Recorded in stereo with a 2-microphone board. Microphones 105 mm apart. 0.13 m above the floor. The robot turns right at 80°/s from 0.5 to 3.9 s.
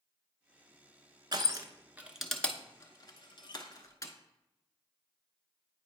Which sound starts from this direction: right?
Crushing, at 1.3 s.